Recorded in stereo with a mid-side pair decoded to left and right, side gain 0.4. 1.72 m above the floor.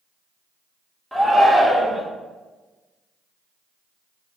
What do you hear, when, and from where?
1.1 s a shout: 10° right, 2.0 m